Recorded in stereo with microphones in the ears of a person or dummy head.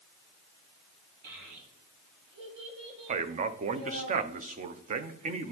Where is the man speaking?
40° right (ahead or behind), 0.5 m.